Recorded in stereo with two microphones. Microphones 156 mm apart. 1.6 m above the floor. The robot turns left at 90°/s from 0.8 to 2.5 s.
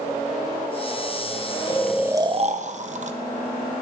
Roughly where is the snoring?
Ahead.